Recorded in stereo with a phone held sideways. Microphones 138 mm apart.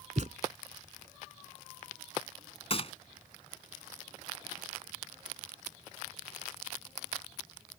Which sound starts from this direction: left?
A gunshot, at 2.7 s.